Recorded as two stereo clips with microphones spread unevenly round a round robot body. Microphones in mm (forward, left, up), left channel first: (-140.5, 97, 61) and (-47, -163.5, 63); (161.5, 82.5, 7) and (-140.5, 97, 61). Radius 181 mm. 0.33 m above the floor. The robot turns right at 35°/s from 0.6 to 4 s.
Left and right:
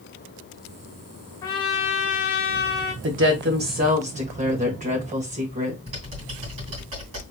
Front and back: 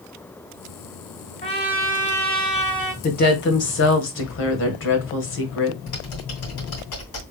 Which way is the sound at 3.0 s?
45° right.